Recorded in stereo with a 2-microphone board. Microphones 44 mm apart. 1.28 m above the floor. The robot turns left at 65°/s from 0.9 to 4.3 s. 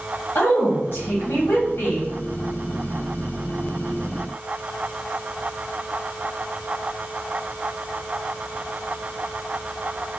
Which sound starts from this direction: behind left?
A woman speaking, at 0.3 s.